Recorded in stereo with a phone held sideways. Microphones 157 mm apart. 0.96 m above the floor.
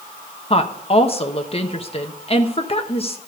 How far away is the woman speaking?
About 1.0 m.